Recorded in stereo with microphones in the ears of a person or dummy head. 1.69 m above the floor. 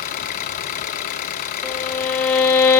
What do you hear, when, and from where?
0.0 s an engine running: 45° left (ahead or behind), 1.2 m
1.6 s a violin: 10° left (ahead or behind), 0.9 m